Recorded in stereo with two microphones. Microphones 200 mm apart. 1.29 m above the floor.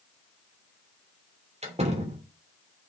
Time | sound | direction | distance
1.6 | a door slam | 35° right (ahead or behind) | 3 m